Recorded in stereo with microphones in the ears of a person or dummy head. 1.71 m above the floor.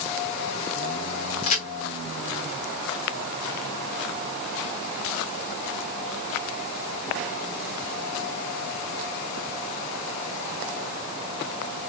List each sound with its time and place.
1.4 s a crack: 35° left (ahead or behind), 0.8 m